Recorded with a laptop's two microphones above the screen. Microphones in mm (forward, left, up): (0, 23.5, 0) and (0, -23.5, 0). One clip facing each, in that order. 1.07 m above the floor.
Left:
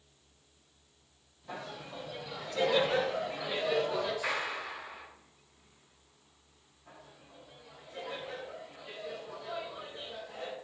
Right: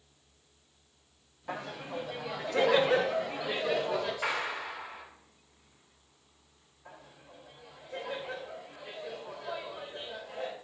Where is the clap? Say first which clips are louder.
Right 1 dB; 85° right, 6 m.